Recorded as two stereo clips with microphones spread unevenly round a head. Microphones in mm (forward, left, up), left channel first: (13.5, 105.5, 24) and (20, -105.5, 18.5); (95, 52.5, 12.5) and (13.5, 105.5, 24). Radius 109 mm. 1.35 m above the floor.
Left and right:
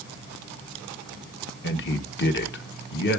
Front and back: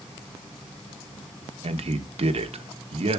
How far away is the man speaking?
About 1.2 m.